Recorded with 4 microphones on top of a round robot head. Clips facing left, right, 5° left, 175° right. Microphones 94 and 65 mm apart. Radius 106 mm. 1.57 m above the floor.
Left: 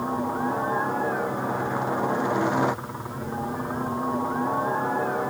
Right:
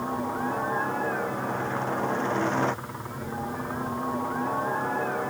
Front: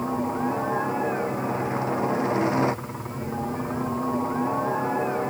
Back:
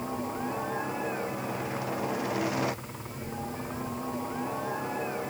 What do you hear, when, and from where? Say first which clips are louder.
0.0 s a helicopter: left 3 dB, front 7 dB; 25° left